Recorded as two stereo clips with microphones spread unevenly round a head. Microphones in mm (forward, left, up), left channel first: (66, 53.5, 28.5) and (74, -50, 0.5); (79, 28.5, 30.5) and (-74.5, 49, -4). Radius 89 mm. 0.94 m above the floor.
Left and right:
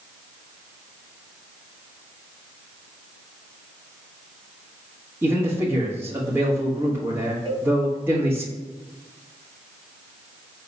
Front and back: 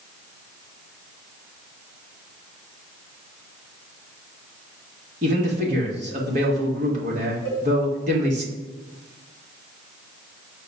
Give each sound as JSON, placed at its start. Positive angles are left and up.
{"t": 5.2, "sound": "a man speaking", "azimuth_deg": -150, "distance_m": 1.2}
{"t": 7.5, "sound": "a cowbell", "azimuth_deg": -155, "distance_m": 2.0}